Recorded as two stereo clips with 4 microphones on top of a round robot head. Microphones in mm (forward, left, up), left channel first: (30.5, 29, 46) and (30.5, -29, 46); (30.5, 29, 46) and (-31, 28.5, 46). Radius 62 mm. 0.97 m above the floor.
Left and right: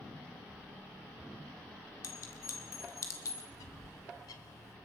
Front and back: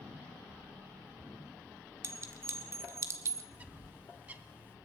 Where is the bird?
115° left, 1.8 m.